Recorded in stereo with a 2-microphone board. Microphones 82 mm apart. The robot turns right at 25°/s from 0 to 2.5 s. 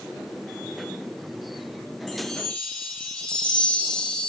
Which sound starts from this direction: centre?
A chime, at 2.1 s.